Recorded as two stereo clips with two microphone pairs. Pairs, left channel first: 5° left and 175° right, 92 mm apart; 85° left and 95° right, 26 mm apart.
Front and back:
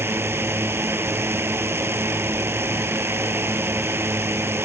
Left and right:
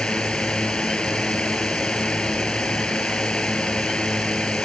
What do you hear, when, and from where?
0.0 s a drone: 125° left